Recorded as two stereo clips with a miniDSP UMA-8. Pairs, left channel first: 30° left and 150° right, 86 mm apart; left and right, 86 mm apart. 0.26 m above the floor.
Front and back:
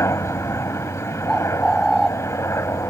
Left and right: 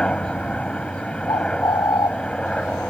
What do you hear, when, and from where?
0.0 s a helicopter: 20° left
1.3 s a bird: 120° left